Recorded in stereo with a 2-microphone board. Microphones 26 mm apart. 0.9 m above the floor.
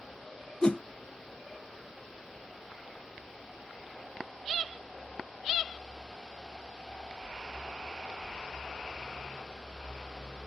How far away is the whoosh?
About 0.6 m.